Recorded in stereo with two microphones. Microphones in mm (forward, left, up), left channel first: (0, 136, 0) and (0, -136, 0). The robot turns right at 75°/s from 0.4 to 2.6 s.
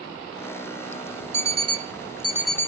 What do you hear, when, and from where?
1.3 s an alarm clock: 85° right, 1.0 m; by 2.7 s 10° left, 1.0 m